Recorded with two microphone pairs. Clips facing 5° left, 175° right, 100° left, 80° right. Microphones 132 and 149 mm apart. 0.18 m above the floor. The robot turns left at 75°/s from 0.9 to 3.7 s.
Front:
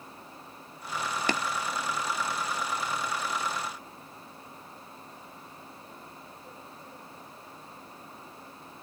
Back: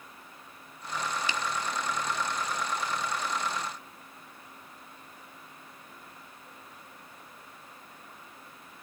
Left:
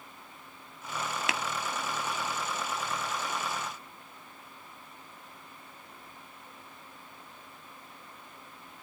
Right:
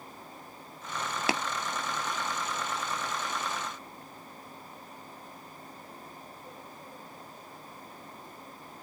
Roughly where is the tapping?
Ahead right.